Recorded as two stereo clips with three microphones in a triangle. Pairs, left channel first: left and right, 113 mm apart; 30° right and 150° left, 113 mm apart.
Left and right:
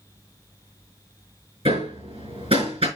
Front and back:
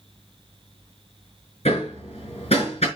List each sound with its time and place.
1.6 s hammering: 55° right, 4.5 m